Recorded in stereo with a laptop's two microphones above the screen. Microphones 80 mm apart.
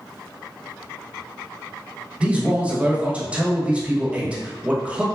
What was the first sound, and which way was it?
A man speaking, 15° right (ahead or behind).